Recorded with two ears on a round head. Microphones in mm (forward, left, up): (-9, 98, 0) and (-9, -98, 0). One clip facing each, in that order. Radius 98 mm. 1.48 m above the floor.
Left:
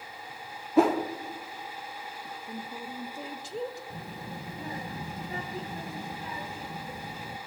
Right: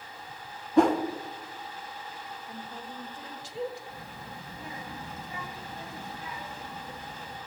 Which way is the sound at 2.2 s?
75° left (ahead or behind).